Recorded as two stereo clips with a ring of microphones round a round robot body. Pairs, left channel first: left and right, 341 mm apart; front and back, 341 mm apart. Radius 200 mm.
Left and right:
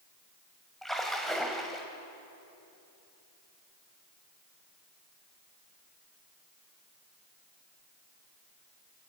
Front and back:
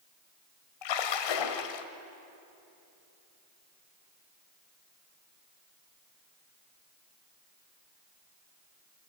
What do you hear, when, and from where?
0.8 s a splash: straight ahead, 1.5 m